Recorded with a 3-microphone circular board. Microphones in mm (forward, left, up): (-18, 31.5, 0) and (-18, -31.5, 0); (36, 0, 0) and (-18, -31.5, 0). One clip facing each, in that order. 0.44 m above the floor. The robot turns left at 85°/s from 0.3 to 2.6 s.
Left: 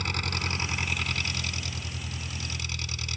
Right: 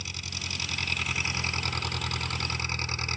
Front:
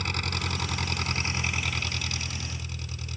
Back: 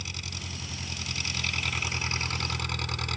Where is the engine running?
60° left; by 3.2 s 135° right.